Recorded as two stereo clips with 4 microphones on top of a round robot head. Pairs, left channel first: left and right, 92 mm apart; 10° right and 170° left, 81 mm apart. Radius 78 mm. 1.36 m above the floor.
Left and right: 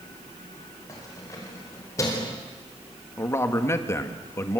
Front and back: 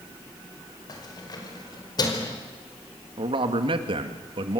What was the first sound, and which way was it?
Keys jangling, 30° left.